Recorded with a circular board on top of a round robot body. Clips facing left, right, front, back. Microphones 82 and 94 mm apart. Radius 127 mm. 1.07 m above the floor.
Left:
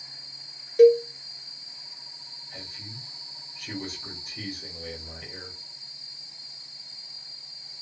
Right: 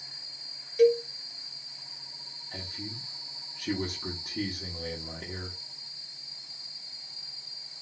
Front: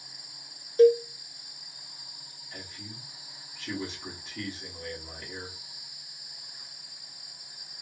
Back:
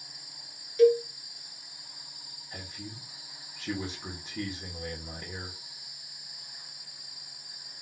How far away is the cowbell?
About 0.9 m.